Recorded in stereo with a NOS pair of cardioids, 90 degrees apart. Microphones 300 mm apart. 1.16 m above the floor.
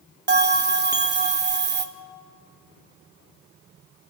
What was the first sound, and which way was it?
A bell, 35° right.